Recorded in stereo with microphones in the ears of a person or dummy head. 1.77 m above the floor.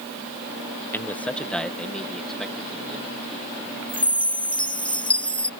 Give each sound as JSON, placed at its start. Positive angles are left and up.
{"t": 0.9, "sound": "a man speaking", "side_deg": 10}
{"t": 3.9, "sound": "a chime", "side_deg": 5}